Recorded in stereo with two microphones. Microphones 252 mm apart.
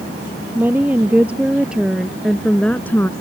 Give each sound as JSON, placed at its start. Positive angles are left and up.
{"t": 0.6, "sound": "a woman speaking", "side_deg": -5}